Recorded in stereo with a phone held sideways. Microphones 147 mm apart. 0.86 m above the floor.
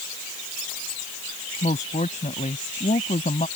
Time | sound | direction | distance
1.6 | a woman speaking | 55° left (ahead or behind) | ?